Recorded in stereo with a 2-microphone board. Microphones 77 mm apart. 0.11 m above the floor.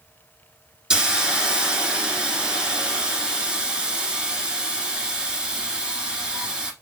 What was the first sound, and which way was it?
A hiss, 10° right (ahead or behind).